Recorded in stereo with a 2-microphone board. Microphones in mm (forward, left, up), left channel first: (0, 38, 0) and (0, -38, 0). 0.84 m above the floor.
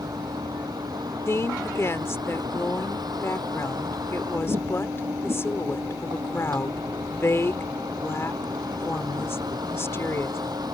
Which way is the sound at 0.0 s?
60° right (ahead or behind).